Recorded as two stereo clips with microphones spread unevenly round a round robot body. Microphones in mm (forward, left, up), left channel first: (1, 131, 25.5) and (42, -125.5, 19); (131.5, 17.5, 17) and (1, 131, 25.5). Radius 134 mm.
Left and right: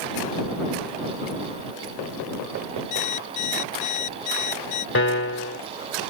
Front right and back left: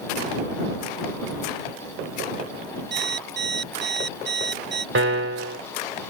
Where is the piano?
145° left.